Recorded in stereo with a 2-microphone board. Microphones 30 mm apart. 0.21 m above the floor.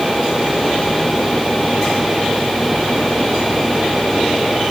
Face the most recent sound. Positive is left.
No sound to turn to.